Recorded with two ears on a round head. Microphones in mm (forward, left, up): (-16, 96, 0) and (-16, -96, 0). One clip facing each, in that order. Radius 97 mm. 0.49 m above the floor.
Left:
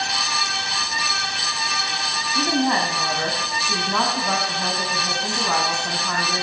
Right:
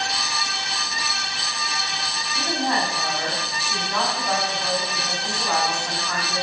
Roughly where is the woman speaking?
Left.